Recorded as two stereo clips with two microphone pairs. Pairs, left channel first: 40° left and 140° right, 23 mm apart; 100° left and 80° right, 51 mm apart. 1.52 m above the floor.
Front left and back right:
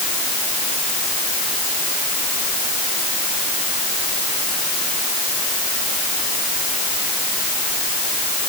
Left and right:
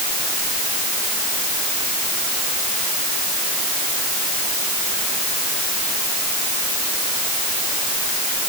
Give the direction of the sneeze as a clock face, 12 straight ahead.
No sneeze in this recording.